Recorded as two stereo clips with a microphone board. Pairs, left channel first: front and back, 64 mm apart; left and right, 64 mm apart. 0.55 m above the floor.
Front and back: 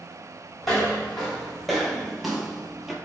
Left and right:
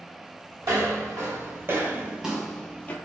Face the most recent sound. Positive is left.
turn(degrees=100)